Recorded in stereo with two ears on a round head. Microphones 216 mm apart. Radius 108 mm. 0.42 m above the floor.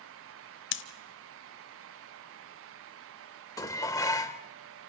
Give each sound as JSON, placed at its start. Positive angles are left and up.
{"t": 0.7, "sound": "scissors", "side_deg": 50, "distance_m": 0.9}
{"t": 3.6, "sound": "dishes clattering", "side_deg": 15, "distance_m": 0.7}